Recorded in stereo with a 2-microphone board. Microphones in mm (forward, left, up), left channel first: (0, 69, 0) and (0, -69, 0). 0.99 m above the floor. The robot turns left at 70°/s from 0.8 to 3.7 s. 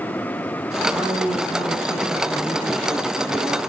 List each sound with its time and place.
0.9 s a man speaking: 100° left, 6 m; by 3.6 s 90° right, 6 m